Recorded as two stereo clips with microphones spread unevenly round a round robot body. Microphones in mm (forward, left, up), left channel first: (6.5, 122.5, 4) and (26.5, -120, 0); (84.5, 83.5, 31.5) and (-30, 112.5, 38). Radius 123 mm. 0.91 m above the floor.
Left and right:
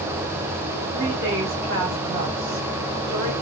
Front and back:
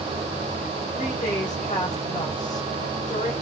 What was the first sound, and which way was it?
A woman speaking, 35° right.